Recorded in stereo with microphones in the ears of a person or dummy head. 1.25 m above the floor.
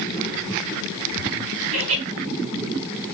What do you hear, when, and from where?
1.7 s laughter: 85° right, 5.5 m